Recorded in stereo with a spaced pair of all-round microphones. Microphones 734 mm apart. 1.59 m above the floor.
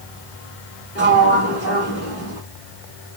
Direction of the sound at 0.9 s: 20° left (ahead or behind).